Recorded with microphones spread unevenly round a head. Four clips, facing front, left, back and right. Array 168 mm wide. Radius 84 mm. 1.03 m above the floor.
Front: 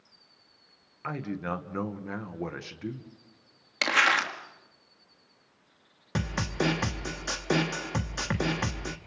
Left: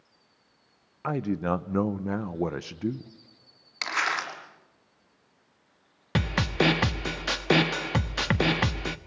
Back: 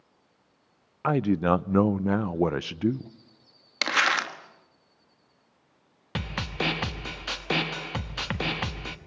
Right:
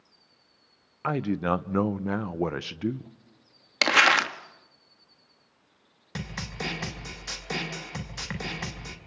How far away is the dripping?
No dripping in this recording.